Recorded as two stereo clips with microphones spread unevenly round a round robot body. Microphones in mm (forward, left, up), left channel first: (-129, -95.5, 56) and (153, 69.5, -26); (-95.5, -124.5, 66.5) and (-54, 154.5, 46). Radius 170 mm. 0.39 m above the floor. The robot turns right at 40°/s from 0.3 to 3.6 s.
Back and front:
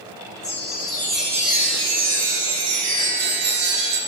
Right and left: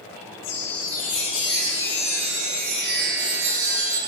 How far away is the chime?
About 4.5 m.